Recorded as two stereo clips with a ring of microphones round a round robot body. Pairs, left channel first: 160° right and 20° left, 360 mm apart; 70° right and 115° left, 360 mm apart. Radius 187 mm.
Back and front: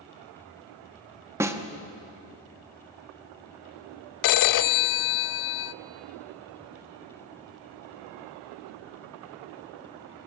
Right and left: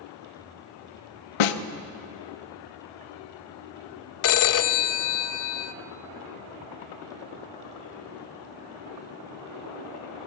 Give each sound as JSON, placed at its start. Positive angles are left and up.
{"t": 1.4, "sound": "a snare drum", "azimuth_deg": -60, "distance_m": 1.0}
{"t": 4.2, "sound": "a phone ringing", "azimuth_deg": -120, "distance_m": 0.5}